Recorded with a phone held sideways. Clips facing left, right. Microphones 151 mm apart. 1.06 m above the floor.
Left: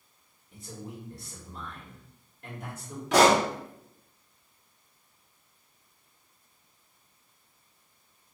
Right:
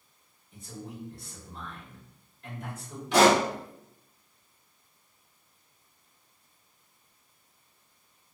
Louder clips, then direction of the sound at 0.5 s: Even; 65° left (ahead or behind).